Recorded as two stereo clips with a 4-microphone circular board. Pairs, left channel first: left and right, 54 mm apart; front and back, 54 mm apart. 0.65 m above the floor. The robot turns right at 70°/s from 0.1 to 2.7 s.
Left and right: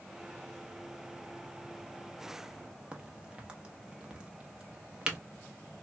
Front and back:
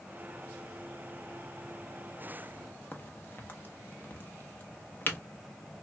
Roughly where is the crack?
Ahead right.